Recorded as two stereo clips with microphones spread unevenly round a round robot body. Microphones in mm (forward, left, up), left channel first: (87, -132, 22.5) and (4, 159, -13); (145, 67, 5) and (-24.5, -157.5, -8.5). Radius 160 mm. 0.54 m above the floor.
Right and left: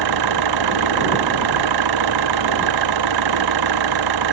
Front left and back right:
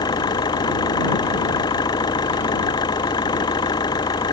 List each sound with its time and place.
0.0 s an engine running: 130° left